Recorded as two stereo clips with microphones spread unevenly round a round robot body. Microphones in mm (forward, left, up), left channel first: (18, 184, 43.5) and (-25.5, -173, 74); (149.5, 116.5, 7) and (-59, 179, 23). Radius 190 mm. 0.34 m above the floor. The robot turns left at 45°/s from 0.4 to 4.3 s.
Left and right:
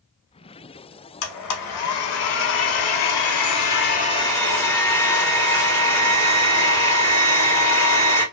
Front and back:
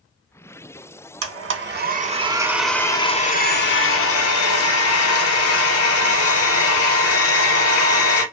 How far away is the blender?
About 0.7 m.